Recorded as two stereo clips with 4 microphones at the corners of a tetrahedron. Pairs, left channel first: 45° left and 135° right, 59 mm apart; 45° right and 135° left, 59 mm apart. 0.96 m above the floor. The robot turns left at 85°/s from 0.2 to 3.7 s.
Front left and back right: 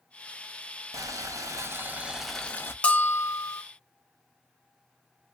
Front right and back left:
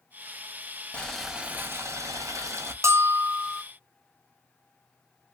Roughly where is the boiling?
Behind right.